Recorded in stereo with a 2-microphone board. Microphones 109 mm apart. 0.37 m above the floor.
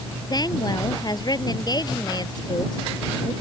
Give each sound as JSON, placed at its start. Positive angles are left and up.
{"t": 0.3, "sound": "a woman speaking", "side_deg": 40}